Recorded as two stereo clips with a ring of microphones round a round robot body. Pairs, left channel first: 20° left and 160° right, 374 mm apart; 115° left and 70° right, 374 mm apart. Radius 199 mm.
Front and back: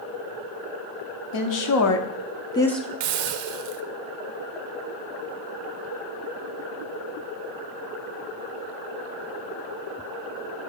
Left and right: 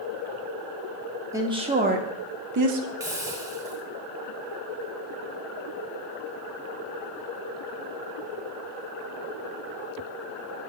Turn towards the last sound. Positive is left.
turn(degrees=-150)